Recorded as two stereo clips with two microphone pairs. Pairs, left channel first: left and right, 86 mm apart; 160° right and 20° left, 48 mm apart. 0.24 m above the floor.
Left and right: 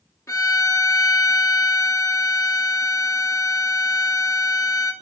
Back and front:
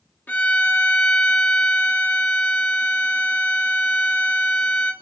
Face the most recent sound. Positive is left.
turn(degrees=150)